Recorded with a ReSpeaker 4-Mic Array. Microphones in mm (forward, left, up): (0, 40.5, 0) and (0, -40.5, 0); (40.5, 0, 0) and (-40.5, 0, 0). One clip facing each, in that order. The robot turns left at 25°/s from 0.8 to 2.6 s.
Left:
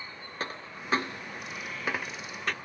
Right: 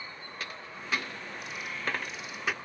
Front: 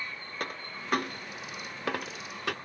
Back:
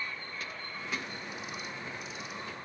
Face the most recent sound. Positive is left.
turn(degrees=-10)